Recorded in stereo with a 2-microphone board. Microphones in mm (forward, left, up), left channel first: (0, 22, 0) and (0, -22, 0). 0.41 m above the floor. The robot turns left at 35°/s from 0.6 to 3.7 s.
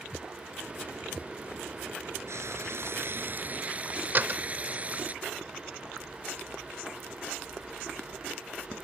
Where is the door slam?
45° right (ahead or behind).